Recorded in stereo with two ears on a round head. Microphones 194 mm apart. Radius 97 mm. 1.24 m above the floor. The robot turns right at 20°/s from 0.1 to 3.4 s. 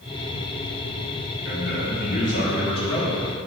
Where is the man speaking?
125° left, 3.5 m; by 3.2 s 160° left, 3.5 m.